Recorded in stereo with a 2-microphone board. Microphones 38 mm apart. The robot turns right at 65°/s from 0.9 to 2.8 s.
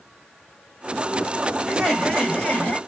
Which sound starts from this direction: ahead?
Laughter, at 1.7 s.